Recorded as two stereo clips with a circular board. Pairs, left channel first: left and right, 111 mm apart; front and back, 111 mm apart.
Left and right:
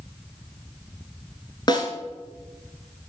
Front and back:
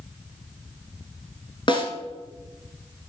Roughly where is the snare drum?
Ahead left.